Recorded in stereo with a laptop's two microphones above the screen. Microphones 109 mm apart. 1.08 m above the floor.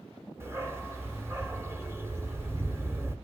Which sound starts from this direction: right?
A dog barking, at 0.4 s.